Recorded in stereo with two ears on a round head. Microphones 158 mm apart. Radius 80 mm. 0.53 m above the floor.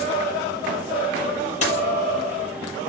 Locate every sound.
1.6 s a dropped coin: 40° left (ahead or behind), 7 m